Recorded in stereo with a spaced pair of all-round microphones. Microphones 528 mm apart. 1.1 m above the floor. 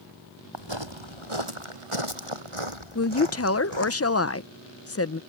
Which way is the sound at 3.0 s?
30° left (ahead or behind).